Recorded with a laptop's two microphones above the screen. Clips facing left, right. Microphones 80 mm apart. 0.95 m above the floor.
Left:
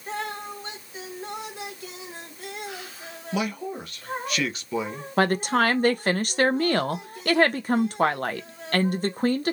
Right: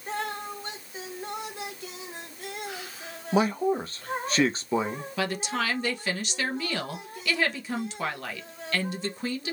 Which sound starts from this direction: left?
A woman speaking, at 5.2 s.